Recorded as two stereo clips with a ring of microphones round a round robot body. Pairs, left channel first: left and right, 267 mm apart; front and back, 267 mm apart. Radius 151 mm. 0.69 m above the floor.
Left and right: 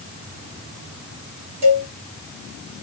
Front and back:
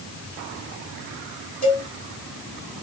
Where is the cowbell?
65° right, 3.5 m.